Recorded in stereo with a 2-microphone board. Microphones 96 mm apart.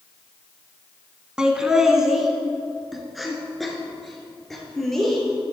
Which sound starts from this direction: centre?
Laughter, at 1.4 s.